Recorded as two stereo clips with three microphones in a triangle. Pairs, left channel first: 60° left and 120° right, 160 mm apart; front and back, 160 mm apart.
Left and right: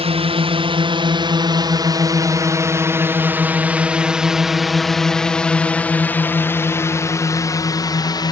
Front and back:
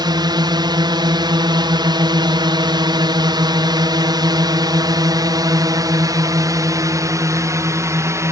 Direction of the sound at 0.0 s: 135° right.